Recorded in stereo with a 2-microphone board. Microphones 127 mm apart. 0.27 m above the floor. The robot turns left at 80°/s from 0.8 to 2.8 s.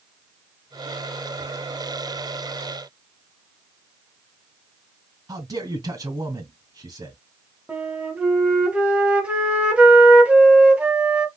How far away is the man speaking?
About 3 m.